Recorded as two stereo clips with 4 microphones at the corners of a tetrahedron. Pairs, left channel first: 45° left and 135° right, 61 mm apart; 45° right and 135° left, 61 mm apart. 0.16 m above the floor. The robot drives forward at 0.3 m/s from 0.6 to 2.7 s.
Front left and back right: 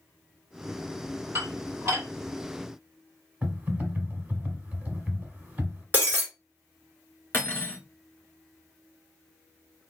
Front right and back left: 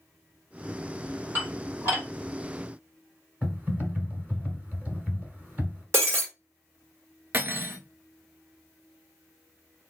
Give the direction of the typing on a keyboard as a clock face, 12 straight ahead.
6 o'clock.